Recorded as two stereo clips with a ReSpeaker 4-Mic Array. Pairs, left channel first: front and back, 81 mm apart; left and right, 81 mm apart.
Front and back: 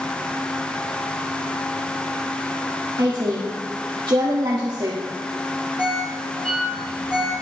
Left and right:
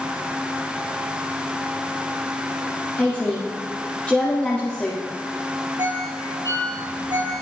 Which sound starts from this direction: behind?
A woman speaking, at 3.0 s.